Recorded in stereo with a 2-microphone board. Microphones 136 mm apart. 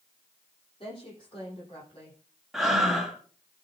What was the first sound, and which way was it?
A woman speaking, 40° left (ahead or behind).